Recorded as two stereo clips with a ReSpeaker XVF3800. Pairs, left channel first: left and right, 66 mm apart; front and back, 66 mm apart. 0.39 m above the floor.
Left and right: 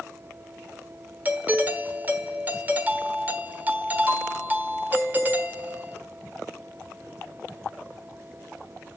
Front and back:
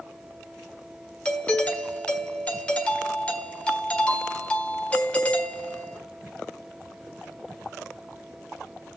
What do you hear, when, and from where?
1.2 s a doorbell: 55° right, 1.3 m